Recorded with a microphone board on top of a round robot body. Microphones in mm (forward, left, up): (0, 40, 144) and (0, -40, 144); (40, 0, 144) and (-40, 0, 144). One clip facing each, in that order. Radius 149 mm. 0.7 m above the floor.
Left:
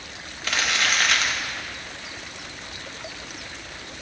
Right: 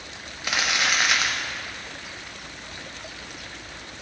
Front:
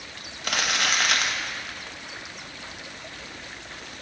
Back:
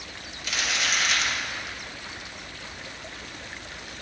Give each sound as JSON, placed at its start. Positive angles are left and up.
{"t": 0.4, "sound": "crumpling", "azimuth_deg": -15, "distance_m": 1.4}